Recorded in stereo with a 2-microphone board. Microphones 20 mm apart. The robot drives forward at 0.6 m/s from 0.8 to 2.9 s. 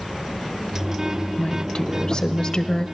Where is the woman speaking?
55° left (ahead or behind), 1.5 m; by 2.9 s 40° left (ahead or behind), 1.9 m.